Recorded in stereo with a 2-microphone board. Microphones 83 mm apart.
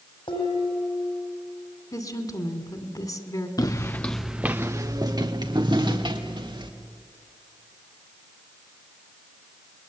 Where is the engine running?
I don't hear an engine running.